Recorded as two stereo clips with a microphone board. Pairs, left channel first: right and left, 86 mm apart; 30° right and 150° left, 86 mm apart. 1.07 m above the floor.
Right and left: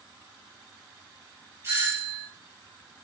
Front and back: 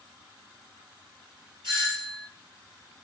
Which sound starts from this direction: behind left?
A doorbell, at 1.6 s.